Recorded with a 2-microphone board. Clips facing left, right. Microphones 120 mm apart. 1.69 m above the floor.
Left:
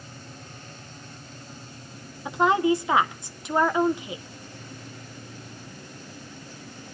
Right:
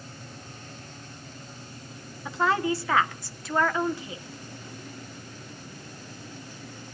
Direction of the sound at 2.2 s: 20° left (ahead or behind).